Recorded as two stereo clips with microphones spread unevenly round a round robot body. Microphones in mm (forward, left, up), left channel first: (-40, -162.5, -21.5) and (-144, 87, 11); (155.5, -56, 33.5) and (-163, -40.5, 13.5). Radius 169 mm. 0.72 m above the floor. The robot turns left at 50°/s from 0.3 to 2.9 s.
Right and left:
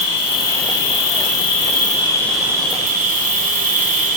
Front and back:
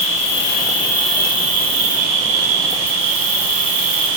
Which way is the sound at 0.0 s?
55° right.